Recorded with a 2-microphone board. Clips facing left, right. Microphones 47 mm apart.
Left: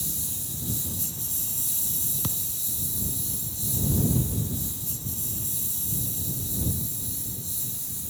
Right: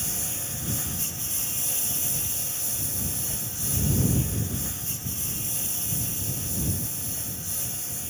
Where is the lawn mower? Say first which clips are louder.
Right 3 dB; 50° right (ahead or behind); by 8.1 s 55° right (ahead or behind).